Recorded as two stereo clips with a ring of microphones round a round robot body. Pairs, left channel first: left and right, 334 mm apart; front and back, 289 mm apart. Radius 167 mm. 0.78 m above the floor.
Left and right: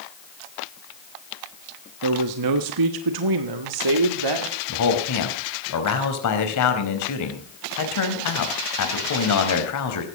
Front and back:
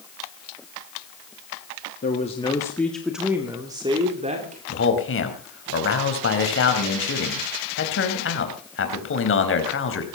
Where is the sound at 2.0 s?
60° right, 1.6 m; by 4.6 s 110° right, 2.5 m.